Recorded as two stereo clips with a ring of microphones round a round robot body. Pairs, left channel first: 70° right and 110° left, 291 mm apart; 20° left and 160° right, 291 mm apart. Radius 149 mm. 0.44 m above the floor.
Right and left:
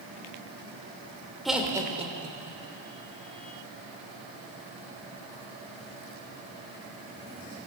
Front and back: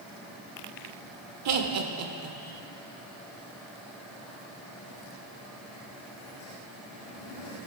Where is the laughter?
155° right, 1.1 m; by 2.6 s 160° left, 1.2 m.